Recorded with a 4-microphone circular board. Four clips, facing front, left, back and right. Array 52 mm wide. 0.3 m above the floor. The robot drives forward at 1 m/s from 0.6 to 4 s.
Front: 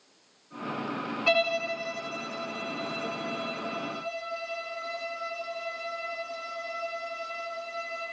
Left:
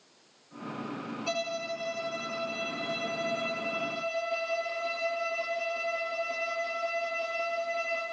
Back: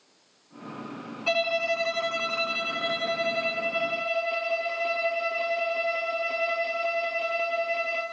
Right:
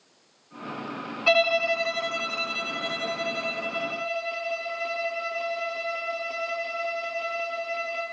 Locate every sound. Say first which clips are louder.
1.3 s a violin: right 13 dB, back 1 dB; 75° right, 0.6 m; by 8.0 s 170° right, 2.5 m